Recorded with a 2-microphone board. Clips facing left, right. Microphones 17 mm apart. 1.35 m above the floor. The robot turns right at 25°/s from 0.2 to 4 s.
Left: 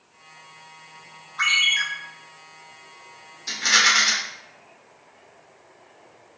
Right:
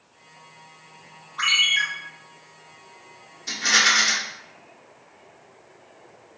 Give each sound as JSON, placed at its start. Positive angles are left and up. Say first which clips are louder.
{"t": 1.4, "sound": "a ringtone", "louder": "even", "side_deg": -5, "distance_m": 2.0}
{"t": 3.5, "sound": "a rattle", "louder": "left 1 dB", "side_deg": 10, "distance_m": 1.2}